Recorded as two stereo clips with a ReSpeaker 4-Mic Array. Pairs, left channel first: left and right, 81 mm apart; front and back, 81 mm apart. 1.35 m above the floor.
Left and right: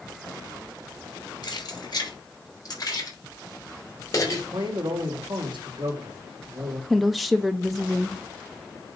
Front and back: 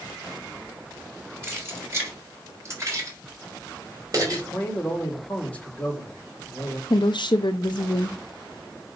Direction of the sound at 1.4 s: 120° left.